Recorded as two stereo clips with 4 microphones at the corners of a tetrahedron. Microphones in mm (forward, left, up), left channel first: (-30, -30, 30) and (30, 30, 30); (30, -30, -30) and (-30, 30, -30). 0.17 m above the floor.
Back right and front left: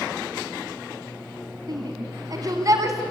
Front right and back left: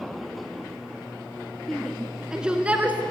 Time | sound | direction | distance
1.7 | a shout | 40° left | 1.6 m